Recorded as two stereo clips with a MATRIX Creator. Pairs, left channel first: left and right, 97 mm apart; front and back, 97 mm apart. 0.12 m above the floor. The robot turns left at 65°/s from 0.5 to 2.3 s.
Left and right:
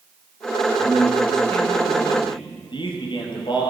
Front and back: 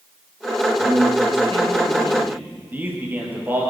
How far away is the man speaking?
About 3.5 m.